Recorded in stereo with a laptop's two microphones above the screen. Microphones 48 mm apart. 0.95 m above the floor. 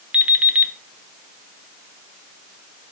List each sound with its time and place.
0.1 s an alarm clock: 25° right (ahead or behind), 0.9 m